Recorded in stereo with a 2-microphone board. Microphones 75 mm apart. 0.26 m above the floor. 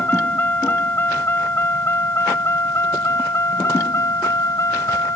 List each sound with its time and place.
0.0 s a vehicle: 25° left (ahead or behind); by 5.2 s 40° left (ahead or behind)